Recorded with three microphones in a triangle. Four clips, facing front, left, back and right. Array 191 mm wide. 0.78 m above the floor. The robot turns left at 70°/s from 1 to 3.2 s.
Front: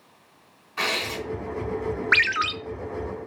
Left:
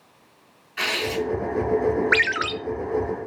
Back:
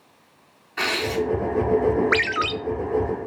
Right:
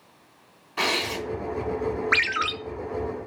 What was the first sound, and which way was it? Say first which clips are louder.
Tearing paper: left 2 dB, back 5 dB; 125° right.